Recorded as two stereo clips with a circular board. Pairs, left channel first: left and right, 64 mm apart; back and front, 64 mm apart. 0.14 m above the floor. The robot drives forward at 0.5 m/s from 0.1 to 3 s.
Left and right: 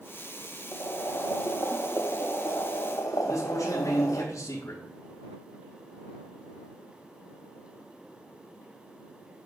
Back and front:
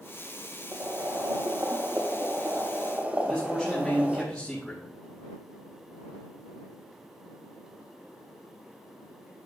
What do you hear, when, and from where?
0.7 s boiling: 50° left, 3 m; by 4.2 s 70° left, 2.5 m
3.2 s a man speaking: 105° left, 5 m